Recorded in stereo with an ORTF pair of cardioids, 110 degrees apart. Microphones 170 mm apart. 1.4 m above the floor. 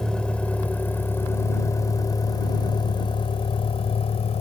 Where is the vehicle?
5° left; by 4.4 s 40° left.